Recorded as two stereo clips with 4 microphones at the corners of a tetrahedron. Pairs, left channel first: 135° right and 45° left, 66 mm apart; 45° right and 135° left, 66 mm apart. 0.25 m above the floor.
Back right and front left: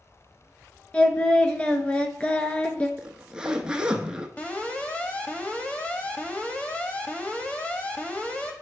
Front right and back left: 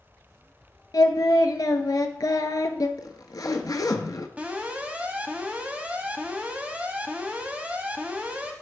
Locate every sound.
0.9 s singing: 65° right, 0.7 m
3.0 s a zipper: 30° right, 0.7 m
4.4 s an alarm: straight behind, 0.9 m